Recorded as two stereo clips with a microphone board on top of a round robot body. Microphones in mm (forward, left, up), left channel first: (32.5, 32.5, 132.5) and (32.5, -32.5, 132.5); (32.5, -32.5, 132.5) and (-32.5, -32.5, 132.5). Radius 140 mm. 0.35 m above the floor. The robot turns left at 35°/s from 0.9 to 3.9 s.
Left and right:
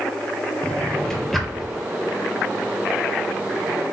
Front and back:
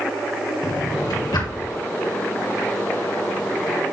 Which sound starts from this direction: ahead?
A drawer, at 0.6 s.